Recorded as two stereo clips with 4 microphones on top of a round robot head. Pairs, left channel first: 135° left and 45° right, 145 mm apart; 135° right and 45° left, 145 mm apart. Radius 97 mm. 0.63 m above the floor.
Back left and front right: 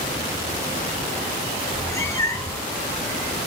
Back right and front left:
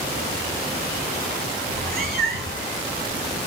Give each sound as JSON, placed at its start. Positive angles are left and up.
{"t": 1.7, "sound": "a cat meowing", "azimuth_deg": 65, "distance_m": 5.5}